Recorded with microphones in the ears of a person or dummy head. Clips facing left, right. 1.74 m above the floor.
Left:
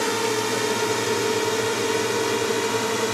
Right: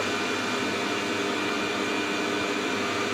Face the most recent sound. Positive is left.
turn(degrees=60)  # may be behind; listen again after turning